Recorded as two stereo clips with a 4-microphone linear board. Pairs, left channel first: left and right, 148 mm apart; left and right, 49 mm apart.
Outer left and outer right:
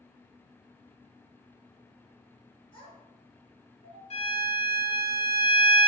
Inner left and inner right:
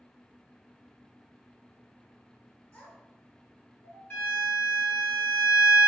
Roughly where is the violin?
Left.